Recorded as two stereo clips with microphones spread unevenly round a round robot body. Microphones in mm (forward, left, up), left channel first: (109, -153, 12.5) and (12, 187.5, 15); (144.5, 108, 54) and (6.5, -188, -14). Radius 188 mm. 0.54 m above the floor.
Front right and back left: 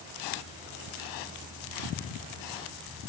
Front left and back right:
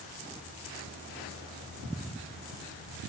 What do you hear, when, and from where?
Only background noise.